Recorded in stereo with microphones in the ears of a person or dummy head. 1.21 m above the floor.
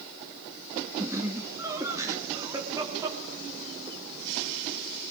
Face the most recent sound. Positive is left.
turn(degrees=-20)  # may be behind; listen again after turning